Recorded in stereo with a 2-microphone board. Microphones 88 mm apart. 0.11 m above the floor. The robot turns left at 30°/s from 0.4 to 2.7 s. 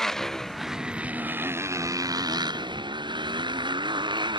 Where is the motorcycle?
5° left; by 4.4 s 65° right.